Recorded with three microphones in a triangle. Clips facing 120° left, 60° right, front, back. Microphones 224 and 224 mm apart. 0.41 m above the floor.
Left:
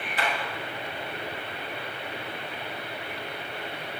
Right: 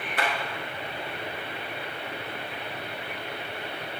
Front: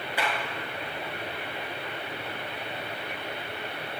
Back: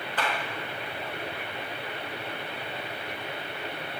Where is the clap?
80° right, 5.5 m.